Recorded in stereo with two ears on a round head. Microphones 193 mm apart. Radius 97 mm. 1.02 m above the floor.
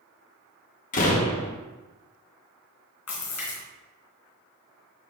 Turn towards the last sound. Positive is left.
turn(degrees=75)  # may be behind; listen again after turning